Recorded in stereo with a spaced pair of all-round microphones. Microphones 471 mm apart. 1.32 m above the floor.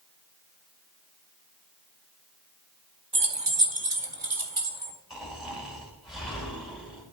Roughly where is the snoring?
Centre.